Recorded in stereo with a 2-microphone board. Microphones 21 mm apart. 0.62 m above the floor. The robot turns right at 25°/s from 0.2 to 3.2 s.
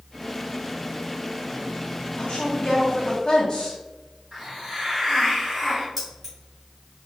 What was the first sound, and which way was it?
A woman speaking, 35° left (ahead or behind).